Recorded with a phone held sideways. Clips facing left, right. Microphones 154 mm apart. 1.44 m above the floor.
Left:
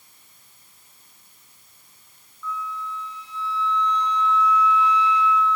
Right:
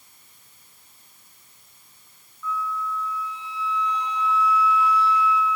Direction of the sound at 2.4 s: 5° right (ahead or behind).